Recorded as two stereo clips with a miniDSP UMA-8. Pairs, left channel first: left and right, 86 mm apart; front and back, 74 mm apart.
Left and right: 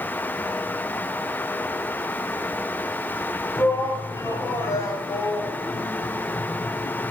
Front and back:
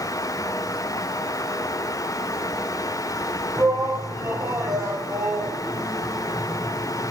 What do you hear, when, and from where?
3.6 s a shout: 135° left, 6.5 m